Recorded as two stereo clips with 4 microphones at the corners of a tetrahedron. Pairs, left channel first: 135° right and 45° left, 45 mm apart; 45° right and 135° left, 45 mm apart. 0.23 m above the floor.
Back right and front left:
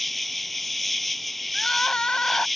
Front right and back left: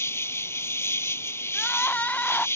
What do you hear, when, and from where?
0.0 s an insect: 50° right
1.5 s crying: 80° right